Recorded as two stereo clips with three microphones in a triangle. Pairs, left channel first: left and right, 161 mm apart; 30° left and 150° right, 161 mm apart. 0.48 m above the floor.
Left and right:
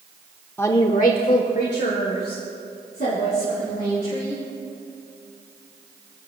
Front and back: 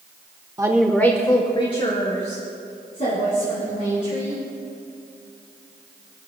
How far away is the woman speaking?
About 0.9 m.